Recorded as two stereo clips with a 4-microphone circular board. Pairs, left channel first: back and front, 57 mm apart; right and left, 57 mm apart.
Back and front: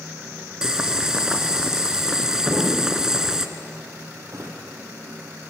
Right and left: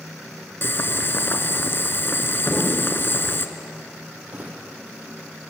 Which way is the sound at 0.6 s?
75° right.